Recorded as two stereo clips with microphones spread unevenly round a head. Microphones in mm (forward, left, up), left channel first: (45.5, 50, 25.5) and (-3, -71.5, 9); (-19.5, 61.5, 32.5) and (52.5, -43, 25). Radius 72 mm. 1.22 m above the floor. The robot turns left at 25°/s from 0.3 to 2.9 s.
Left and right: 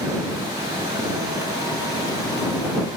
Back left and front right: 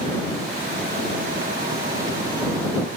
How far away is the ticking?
I don't hear ticking.